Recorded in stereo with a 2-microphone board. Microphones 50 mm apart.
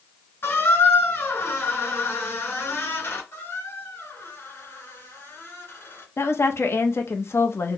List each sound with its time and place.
0.4 s a squeak: 50° left (ahead or behind), 2.5 m
3.3 s a squeak: 55° left (ahead or behind), 2 m
6.2 s a woman speaking: 55° left (ahead or behind), 0.7 m